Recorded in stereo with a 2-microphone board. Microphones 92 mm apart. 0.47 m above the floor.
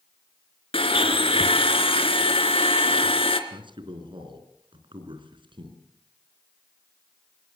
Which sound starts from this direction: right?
A man speaking, at 3.5 s.